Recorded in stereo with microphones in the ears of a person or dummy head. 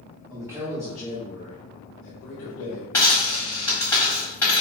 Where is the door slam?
I don't hear a door slam.